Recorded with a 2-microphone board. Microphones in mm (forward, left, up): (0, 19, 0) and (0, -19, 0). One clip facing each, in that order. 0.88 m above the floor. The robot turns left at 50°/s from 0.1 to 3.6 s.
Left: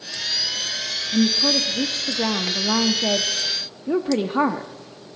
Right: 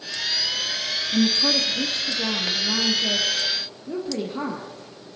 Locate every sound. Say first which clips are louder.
1.1 s a woman speaking: left 2 dB; straight behind, 0.7 m; by 4.7 s 55° left, 0.7 m